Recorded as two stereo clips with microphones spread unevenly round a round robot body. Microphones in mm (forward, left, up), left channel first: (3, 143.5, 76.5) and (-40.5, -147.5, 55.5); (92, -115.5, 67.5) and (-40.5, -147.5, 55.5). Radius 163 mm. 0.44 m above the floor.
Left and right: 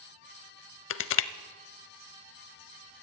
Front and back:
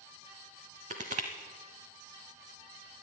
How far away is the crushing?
About 0.5 m.